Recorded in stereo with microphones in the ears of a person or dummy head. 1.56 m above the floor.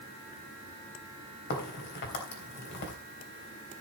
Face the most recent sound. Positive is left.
turn(degrees=55)  # may be behind; listen again after turning